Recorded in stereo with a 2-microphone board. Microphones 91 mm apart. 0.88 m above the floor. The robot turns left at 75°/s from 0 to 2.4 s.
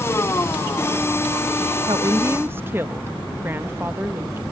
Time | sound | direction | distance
1.9 | a woman speaking | 110° right | ?